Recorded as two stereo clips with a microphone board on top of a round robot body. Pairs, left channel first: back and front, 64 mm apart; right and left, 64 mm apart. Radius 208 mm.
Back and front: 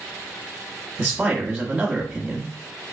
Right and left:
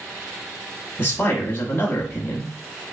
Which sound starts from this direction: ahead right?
A man speaking, at 1.0 s.